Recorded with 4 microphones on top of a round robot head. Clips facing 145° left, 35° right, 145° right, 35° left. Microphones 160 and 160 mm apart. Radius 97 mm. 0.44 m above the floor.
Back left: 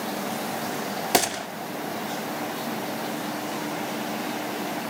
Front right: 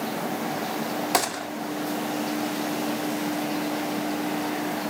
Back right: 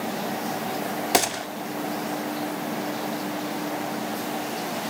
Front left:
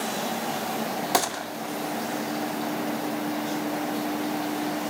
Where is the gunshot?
170° left, 1.4 m.